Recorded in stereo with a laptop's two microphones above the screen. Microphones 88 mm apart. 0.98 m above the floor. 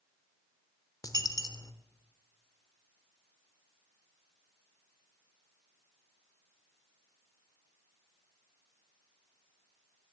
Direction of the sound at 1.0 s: 45° left (ahead or behind).